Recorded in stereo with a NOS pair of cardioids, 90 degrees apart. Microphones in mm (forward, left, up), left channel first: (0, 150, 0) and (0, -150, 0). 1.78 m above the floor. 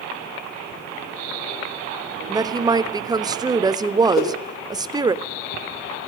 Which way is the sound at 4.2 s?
60° left.